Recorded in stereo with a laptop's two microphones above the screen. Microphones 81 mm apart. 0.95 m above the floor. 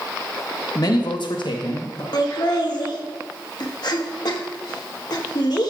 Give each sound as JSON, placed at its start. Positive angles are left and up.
{"t": 0.8, "sound": "a man speaking", "side_deg": 50, "distance_m": 1.5}
{"t": 2.1, "sound": "laughter", "side_deg": 60, "distance_m": 1.2}